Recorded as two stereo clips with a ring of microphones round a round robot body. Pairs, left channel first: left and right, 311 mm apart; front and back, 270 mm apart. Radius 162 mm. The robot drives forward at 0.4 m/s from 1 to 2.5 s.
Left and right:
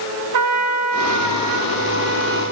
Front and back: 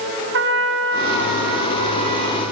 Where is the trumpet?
125° right, 0.8 m; by 2.5 s 150° right, 1.3 m.